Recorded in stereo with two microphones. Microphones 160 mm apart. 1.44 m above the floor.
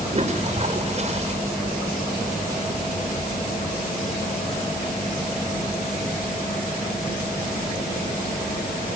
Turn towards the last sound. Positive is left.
turn(degrees=-45)  # may be behind; listen again after turning